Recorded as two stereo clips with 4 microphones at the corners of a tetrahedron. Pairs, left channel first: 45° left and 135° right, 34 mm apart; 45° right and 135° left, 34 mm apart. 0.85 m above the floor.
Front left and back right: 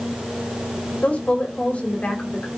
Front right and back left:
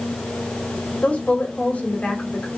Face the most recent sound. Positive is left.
turn(degrees=-5)